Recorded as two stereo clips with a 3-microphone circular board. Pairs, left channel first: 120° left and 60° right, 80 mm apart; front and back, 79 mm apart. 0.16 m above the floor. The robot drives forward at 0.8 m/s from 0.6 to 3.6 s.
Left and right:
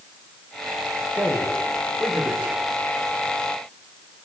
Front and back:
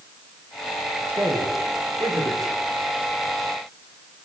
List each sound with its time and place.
1.1 s a man speaking: 135° right, 9.5 m; by 2.5 s 140° right, 10.5 m